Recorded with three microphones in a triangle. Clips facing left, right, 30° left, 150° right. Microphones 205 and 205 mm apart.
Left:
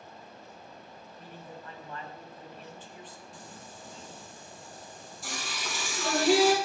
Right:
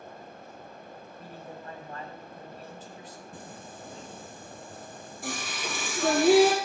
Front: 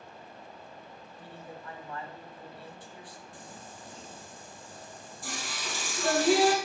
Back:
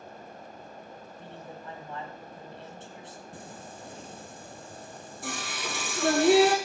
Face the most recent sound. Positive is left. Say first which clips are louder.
# right 4 dB, back 4 dB
turn(degrees=-125)